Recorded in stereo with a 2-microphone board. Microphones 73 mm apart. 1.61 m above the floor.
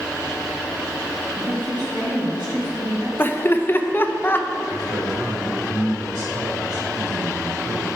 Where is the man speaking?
60° right (ahead or behind), 2.5 m.